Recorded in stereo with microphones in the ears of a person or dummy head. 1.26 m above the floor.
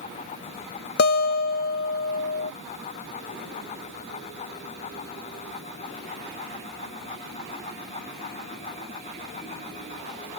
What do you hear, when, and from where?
1.0 s a guitar: 50° left (ahead or behind)